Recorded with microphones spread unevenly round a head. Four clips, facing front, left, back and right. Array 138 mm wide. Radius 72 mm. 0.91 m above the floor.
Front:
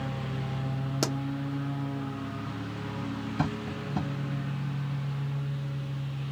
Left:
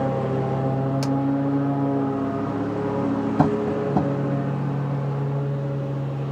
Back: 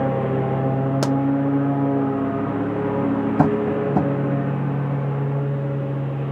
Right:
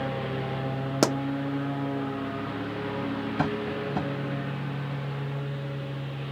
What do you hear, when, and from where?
0.0 s a lawn mower: 150° left
1.0 s a pop: 100° right
3.4 s tapping: 145° left